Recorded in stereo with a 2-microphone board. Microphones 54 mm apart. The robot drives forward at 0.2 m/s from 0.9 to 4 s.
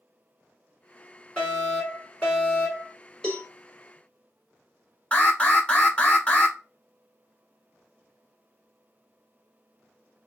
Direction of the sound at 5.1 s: 20° left (ahead or behind).